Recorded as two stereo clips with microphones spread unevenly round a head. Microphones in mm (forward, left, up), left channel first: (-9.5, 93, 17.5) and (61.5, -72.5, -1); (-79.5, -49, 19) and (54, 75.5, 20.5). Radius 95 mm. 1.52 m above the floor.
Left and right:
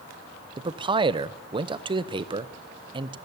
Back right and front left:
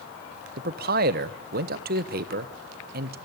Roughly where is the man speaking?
Ahead.